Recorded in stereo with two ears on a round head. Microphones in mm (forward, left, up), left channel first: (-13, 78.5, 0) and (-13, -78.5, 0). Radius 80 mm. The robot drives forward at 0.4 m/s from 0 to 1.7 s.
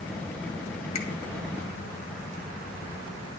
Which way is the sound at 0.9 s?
35° left (ahead or behind).